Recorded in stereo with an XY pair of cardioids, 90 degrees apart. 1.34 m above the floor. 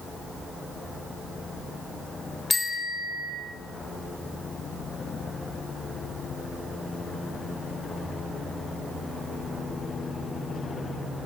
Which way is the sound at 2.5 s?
30° left.